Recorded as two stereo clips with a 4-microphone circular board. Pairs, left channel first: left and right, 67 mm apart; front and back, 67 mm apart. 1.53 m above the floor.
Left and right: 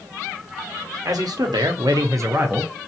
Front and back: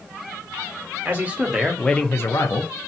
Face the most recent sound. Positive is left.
turn(degrees=-20)